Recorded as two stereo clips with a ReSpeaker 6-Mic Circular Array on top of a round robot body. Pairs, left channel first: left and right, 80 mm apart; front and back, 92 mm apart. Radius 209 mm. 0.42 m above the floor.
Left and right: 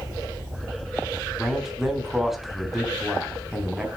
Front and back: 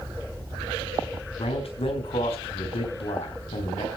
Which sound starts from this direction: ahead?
A man speaking, at 1.4 s.